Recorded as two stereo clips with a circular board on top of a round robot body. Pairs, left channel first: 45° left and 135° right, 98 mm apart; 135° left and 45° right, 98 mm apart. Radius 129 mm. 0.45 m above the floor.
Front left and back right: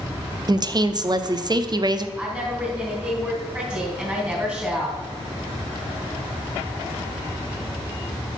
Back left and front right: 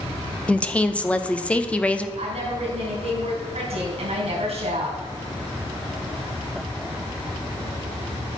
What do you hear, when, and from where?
0.5 s a woman speaking: 155° right, 1.0 m
2.2 s a woman speaking: 55° right, 3.5 m